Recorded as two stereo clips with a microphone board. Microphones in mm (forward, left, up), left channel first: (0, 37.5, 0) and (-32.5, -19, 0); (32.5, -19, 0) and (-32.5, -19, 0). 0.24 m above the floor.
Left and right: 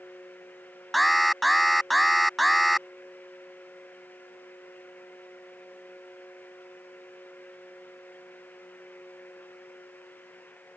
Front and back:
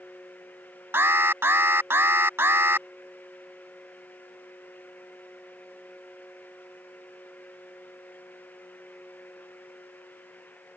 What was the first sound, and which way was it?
An alarm, 150° left.